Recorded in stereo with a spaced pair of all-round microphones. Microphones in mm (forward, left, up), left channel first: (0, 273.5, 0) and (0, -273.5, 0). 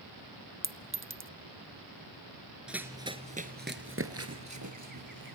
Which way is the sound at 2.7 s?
Centre (ahead or behind).